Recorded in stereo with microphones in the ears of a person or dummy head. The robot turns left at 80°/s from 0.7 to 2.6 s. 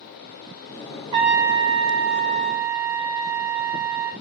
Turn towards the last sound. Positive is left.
turn(degrees=-140)